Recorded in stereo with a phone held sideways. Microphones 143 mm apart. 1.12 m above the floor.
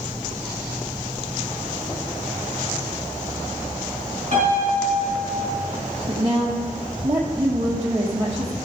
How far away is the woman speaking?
About 0.8 m.